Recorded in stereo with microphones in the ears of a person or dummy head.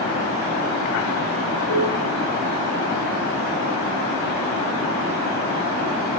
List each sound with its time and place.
1.7 s dishes clattering: 75° left (ahead or behind), 10 m